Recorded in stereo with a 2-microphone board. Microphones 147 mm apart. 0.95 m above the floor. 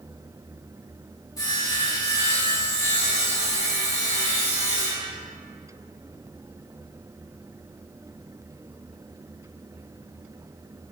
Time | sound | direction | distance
1.4 | sawing | 20° left (ahead or behind) | 1.3 m